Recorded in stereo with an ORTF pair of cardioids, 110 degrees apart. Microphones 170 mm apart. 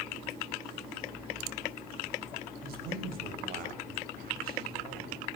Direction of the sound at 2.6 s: 65° right.